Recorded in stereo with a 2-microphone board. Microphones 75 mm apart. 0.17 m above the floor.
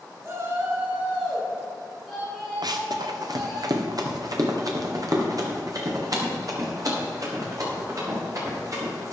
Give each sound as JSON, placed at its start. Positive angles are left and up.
{"t": 0.2, "sound": "a shout", "side_deg": -45, "distance_m": 2.0}
{"t": 2.6, "sound": "running footsteps", "side_deg": -65, "distance_m": 1.3}